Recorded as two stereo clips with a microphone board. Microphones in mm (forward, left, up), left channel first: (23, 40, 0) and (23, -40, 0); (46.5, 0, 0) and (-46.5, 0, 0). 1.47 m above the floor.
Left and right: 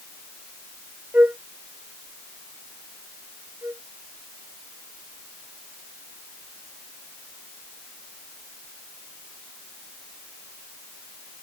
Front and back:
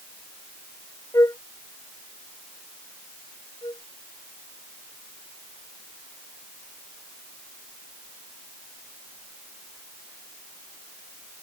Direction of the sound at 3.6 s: 35° right.